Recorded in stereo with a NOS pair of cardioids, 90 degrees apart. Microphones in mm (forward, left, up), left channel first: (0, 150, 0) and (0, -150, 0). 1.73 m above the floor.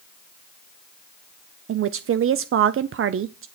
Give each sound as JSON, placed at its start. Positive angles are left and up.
{"t": 1.7, "sound": "a woman speaking", "azimuth_deg": -40, "distance_m": 0.6}